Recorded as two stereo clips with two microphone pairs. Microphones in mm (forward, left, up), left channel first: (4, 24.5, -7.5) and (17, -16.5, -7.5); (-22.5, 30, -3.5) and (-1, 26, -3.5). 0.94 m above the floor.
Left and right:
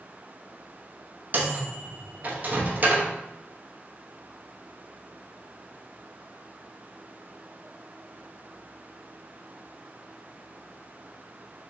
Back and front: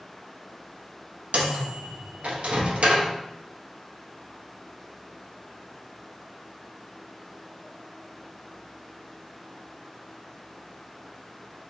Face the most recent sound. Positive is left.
turn(degrees=-25)